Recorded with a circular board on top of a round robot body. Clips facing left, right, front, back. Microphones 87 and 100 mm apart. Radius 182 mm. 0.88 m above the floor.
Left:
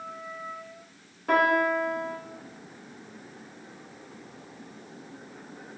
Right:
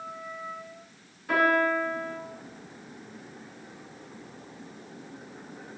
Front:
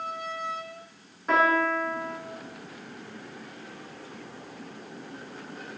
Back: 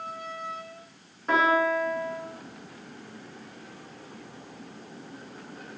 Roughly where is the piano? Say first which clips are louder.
Left 1 dB, even; left.